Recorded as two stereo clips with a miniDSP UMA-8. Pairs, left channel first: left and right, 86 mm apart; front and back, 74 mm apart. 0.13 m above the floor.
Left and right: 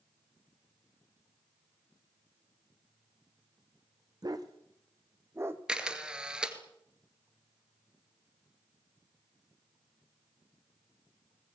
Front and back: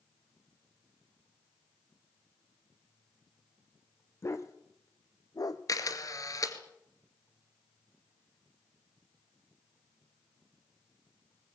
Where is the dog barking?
50° right, 2 m; by 5.6 s 30° right, 1.9 m.